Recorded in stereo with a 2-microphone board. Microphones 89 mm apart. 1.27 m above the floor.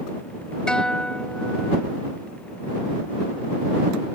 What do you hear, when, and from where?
0.7 s a guitar: 10° left (ahead or behind)